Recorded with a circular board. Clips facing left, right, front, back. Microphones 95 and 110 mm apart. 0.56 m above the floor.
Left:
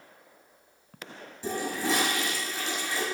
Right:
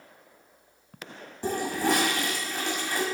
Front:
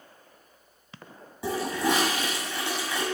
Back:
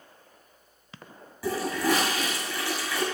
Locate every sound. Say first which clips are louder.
1.4 s a toilet flushing: right 3 dB, even; 65° right, 1.9 m